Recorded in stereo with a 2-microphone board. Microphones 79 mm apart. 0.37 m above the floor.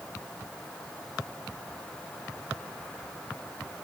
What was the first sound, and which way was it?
Only background noise.